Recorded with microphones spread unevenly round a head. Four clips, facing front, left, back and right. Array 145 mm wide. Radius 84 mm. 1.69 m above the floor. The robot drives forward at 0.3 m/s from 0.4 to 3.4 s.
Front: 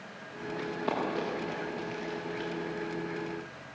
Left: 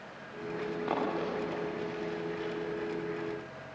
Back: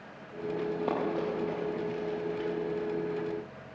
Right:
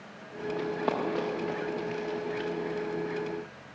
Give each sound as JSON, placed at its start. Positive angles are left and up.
{"t": 0.6, "sound": "running footsteps", "azimuth_deg": -125, "distance_m": 10.0}